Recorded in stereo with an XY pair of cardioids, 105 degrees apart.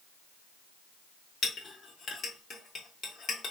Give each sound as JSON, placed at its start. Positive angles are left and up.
{"t": 1.4, "sound": "a clink", "azimuth_deg": 50, "distance_m": 1.3}